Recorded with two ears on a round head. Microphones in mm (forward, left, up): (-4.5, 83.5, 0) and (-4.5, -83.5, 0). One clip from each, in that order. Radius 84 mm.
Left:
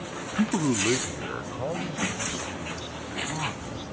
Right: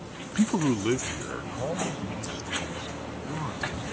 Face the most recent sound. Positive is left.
turn(degrees=20)  # may be behind; listen again after turning